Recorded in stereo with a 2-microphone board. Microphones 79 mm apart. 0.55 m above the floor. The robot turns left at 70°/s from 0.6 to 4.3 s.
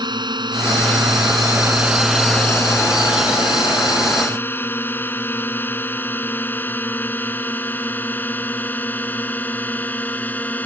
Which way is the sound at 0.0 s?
65° right (ahead or behind).